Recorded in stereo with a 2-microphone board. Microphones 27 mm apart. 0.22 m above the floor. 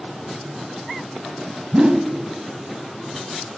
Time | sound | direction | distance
1.7 | a whoosh | 35° right (ahead or behind) | 0.5 m